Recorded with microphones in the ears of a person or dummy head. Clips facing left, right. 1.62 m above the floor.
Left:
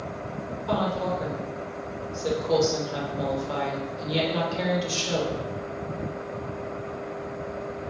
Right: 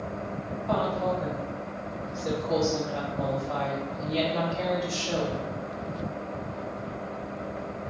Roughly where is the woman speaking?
Left.